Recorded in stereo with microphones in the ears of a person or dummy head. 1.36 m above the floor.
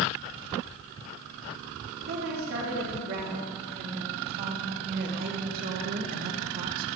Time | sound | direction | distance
2.1 | a woman speaking | 55° right (ahead or behind) | 3.5 m